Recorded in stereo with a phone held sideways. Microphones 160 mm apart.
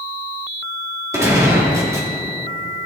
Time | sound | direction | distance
1.1 | a gunshot | 20° right (ahead or behind) | 2.5 m